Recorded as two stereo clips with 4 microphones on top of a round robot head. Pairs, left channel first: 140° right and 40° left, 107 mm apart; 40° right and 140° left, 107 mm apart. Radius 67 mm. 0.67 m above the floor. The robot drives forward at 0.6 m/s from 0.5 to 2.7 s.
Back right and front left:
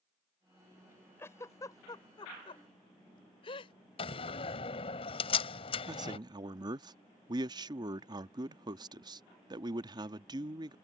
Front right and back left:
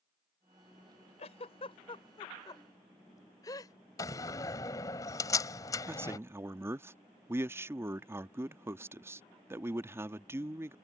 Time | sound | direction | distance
1.2 | a giggle | 70° right | ?
4.0 | a door slam | 100° right | ?
5.9 | a man speaking | 80° left | ?